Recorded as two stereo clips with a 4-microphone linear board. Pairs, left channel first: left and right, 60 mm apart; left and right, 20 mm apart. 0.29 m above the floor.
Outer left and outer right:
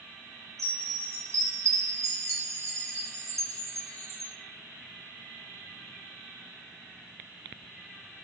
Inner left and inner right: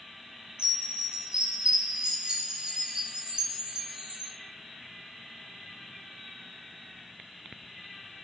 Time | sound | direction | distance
0.6 | a chime | 60° right (ahead or behind) | 2.5 m